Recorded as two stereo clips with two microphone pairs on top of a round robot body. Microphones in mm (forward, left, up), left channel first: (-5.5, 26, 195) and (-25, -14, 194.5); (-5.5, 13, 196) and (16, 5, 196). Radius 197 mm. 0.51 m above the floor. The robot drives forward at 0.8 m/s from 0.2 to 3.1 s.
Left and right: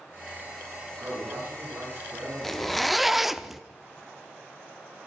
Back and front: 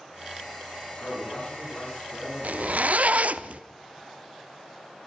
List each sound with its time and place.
1.0 s a man speaking: 155° right, 8 m; by 3.4 s 160° right, 10 m
2.4 s a zipper: 20° right, 1.5 m; by 3.6 s 30° right, 1.0 m